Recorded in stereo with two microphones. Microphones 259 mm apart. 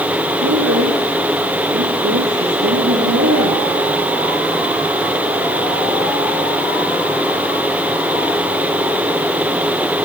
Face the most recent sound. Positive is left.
turn(degrees=-70)  # may be behind; listen again after turning